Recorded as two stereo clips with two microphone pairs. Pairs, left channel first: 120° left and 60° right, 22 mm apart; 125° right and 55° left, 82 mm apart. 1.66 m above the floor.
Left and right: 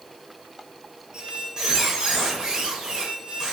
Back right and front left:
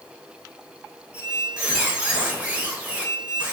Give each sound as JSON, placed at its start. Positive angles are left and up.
{"t": 1.1, "sound": "a squeak", "azimuth_deg": -5, "distance_m": 0.7}